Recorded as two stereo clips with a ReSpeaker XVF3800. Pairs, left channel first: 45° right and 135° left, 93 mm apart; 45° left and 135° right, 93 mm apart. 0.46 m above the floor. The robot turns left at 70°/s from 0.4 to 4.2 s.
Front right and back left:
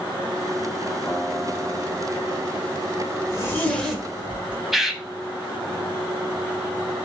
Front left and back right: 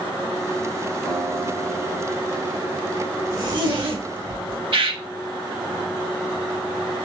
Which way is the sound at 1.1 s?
20° left.